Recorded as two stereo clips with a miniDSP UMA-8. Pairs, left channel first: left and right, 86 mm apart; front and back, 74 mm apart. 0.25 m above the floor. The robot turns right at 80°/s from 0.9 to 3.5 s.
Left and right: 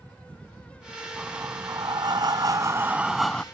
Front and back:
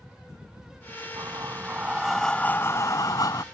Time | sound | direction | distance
1.2 | breathing | 165° right | ?